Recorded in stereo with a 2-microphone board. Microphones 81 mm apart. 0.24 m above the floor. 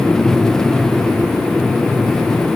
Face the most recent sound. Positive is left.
No sound to turn to.